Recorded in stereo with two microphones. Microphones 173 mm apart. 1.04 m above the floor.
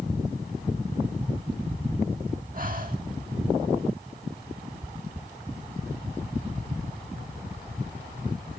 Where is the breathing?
50° right (ahead or behind), 1.6 m.